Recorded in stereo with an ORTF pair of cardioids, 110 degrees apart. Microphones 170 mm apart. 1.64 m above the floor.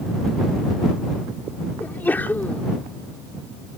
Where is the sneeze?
10° left.